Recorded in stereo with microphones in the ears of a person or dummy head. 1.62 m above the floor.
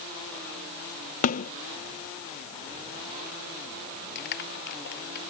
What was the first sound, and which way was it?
A snare drum, 45° left (ahead or behind).